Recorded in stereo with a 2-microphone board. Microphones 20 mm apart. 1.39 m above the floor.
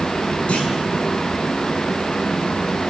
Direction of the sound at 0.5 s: 80° left.